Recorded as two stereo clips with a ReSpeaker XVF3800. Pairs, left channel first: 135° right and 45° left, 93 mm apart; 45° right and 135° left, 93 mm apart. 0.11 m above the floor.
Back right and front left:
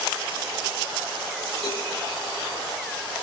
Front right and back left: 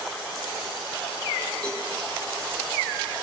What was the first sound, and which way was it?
A cowbell, 120° right.